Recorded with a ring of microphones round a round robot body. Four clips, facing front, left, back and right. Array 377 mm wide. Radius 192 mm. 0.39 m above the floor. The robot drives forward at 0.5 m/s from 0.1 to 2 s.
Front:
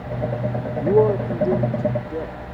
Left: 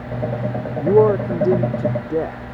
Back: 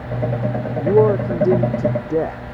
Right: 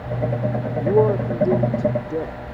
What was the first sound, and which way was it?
A man speaking, 90° left.